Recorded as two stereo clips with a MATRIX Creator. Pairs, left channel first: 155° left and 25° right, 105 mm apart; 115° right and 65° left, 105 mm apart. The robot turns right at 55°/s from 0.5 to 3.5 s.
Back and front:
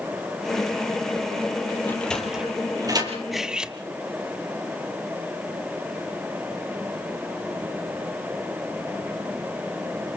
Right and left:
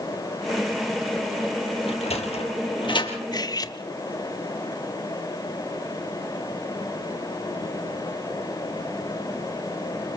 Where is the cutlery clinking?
110° right, 1.0 m; by 3.8 s 100° right, 1.0 m.